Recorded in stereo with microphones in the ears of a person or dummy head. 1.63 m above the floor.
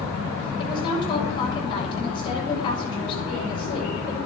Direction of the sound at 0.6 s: 25° left (ahead or behind).